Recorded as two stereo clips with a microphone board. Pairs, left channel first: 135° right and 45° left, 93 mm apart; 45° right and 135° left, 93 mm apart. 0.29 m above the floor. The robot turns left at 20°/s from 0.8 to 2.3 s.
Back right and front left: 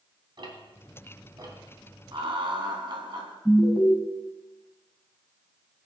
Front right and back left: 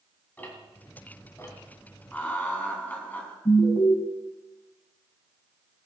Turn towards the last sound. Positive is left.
turn(degrees=-40)